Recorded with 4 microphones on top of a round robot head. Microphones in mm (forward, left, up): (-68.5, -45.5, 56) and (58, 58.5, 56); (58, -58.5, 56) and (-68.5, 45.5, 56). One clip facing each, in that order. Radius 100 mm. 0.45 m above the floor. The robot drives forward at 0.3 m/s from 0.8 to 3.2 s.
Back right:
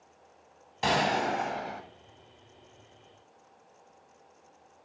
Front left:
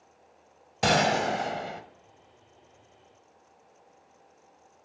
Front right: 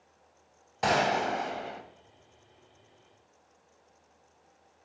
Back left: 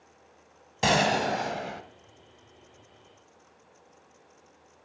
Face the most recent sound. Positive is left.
turn(degrees=125)